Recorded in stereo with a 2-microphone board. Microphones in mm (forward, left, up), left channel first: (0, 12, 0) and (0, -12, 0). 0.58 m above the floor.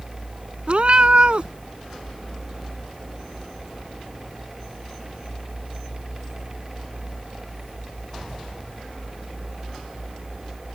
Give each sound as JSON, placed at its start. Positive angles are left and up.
{"t": 0.7, "sound": "a cat meowing", "side_deg": -55}